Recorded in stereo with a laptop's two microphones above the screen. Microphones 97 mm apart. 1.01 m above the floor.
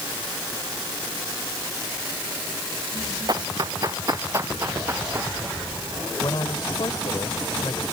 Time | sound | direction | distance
3.3 | running footsteps | 45° right (ahead or behind) | ?
6.2 | a man speaking | 50° left (ahead or behind) | ?